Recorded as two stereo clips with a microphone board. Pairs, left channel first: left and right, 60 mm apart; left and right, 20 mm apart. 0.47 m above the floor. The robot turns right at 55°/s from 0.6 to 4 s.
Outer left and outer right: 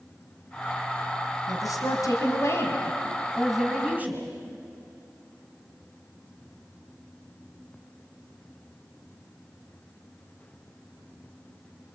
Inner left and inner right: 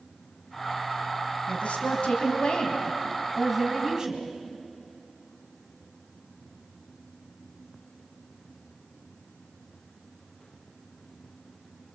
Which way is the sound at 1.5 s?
70° left.